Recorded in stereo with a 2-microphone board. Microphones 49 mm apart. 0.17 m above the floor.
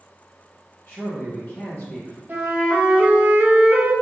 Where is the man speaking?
50° left (ahead or behind), 2 m.